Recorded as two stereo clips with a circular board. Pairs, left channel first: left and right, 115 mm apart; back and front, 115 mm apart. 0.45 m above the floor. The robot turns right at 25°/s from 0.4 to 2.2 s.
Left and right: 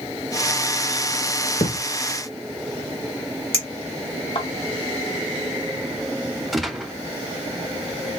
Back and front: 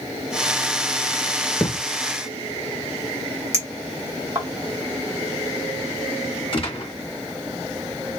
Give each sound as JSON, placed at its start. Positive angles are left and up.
{"t": 1.6, "sound": "a thud", "azimuth_deg": 105, "distance_m": 1.0}
{"t": 3.5, "sound": "a clink", "azimuth_deg": 65, "distance_m": 1.6}
{"t": 6.5, "sound": "a gunshot", "azimuth_deg": 180, "distance_m": 1.0}